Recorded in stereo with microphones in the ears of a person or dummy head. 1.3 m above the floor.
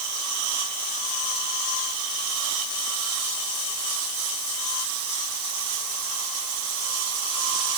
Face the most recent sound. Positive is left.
No sound to turn to.